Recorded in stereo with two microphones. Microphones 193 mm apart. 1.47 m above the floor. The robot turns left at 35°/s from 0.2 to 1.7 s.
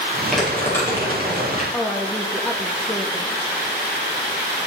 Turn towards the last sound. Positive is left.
turn(degrees=5)  # may be behind; listen again after turning